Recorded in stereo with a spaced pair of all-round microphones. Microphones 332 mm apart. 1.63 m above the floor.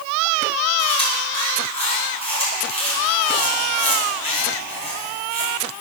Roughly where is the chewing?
Centre.